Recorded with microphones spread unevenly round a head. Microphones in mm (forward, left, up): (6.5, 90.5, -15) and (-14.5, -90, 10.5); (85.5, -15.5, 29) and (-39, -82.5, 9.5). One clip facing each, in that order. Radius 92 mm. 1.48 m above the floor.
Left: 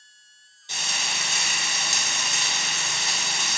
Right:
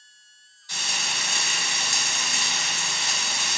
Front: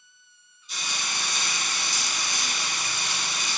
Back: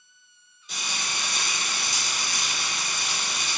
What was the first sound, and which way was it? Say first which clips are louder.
Frying: even, even; 155° left.